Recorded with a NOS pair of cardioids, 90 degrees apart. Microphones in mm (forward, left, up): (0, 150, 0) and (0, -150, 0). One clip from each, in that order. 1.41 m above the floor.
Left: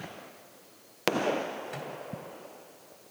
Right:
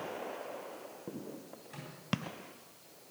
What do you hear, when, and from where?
1.7 s a microwave: 65° left, 3.5 m